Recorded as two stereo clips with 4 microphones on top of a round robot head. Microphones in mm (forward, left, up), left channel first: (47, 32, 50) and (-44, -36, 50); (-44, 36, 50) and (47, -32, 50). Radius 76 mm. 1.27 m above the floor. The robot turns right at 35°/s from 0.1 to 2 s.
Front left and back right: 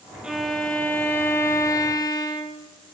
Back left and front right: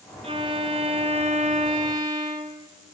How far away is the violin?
About 0.6 m.